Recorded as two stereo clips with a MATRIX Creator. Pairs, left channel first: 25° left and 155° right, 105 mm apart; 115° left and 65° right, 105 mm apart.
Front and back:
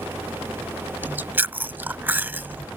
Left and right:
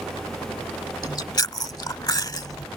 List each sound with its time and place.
1.0 s chewing: 140° left